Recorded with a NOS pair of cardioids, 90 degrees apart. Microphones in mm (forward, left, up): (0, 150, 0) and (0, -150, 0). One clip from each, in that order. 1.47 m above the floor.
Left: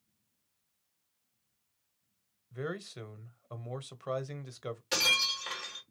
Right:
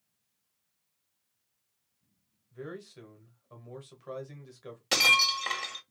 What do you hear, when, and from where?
2.5 s a man speaking: 50° left, 1.0 m
4.9 s breaking glass: 50° right, 1.8 m